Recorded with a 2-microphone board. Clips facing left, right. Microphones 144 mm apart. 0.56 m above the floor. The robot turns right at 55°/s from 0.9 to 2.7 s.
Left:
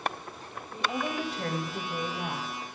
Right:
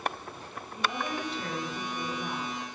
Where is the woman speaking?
25° left, 3 m; by 2.5 s 115° left, 3 m.